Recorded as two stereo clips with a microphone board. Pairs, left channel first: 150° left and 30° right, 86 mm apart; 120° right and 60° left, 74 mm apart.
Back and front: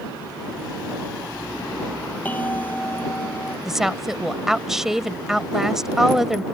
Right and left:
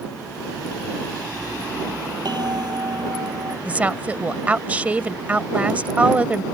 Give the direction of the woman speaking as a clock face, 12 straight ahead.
11 o'clock.